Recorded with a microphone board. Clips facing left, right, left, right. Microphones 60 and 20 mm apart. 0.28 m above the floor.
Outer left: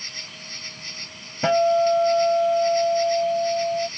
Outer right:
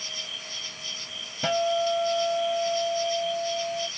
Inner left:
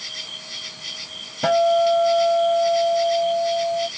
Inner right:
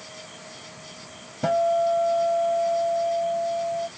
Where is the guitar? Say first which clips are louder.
Outer left 7 dB, inner left 4 dB; 25° left (ahead or behind).